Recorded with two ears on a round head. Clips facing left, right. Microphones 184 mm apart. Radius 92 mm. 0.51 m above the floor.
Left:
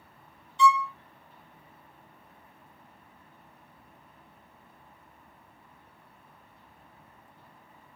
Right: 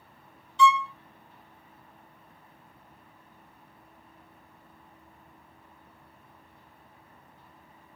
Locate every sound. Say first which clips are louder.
0.6 s a violin: right 1 dB; 60° right (ahead or behind), 0.6 m